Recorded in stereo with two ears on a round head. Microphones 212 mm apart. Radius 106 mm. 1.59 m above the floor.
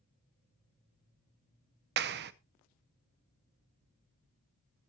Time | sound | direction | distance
2.0 | a clap | 45° right (ahead or behind) | 0.7 m